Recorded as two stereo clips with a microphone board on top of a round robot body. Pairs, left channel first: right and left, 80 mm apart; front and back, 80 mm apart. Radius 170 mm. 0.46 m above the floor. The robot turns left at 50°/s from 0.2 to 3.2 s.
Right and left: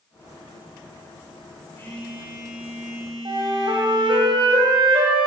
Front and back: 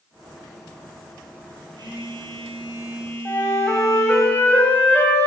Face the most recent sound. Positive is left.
turn(degrees=65)